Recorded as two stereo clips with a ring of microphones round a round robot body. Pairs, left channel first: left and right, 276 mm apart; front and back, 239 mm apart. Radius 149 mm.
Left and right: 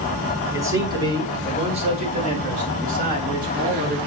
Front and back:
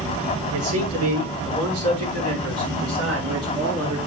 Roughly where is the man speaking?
Behind.